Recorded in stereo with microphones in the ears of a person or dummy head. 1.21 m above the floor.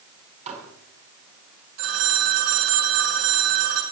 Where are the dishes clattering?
35° right (ahead or behind), 5.5 m.